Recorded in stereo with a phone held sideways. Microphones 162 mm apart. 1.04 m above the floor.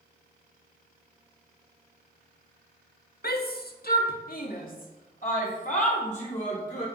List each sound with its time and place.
3.2 s a shout: 70° left (ahead or behind), 1.6 m; by 6.8 s 45° left (ahead or behind), 4.5 m